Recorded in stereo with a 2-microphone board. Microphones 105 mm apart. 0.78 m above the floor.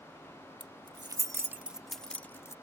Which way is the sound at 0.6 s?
50° right (ahead or behind).